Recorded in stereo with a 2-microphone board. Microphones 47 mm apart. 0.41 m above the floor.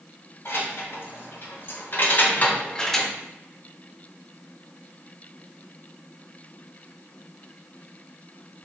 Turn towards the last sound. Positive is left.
turn(degrees=0)  # may be behind; listen again after turning